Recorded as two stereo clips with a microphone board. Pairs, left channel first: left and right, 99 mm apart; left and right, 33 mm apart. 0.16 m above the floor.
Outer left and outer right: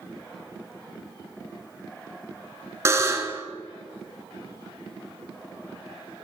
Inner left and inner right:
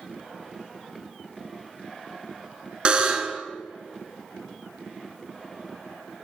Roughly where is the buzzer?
Right.